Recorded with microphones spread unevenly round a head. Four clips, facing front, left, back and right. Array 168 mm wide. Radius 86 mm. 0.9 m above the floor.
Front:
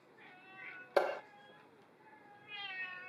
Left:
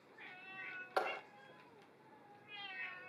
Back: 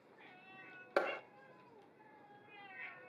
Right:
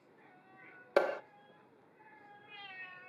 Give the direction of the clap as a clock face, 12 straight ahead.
3 o'clock.